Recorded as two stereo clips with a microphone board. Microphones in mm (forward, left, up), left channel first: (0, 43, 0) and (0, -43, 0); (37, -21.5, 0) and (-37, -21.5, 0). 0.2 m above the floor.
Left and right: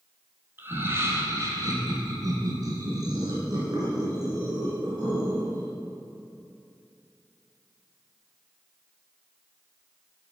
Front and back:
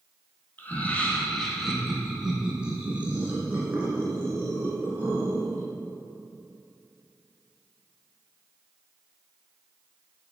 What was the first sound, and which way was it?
Laughter, 45° right.